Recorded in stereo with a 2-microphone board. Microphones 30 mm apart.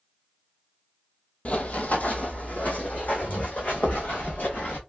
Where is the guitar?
I don't hear a guitar.